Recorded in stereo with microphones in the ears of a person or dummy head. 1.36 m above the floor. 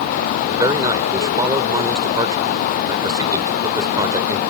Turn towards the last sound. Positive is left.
turn(degrees=-20)  # may be behind; listen again after turning